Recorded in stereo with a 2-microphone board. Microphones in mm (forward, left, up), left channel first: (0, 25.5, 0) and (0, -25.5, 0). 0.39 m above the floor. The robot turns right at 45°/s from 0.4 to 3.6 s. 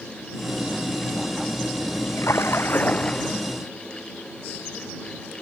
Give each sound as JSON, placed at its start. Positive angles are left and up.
{"t": 2.2, "sound": "a splash", "azimuth_deg": 115}